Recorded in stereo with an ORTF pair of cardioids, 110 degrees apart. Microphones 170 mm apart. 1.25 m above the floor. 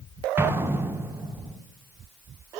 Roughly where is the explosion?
Ahead.